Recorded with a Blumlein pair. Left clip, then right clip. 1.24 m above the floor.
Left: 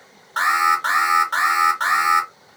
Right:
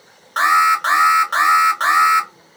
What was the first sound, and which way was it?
An alarm, 10° right.